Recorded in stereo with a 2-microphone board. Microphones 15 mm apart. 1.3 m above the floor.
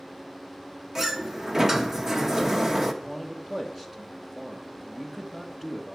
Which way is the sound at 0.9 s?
35° right (ahead or behind).